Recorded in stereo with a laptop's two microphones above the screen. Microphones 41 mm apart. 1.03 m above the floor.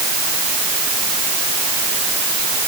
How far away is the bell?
No bell in this recording.